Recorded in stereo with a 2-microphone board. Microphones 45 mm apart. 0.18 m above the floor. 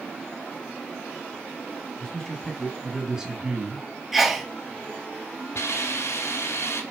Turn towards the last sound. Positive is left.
turn(degrees=75)  # may be behind; listen again after turning